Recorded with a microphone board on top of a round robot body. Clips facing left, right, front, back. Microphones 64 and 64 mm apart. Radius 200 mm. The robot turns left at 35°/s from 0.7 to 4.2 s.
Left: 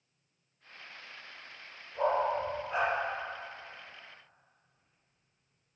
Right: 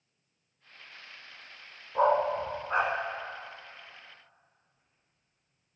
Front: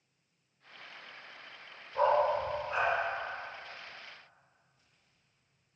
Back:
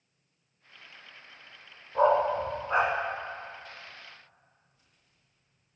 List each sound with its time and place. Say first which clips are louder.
1.9 s a dog barking: right 4 dB, back 3 dB; 110° right, 1.2 m; by 2.9 s 145° right, 1.2 m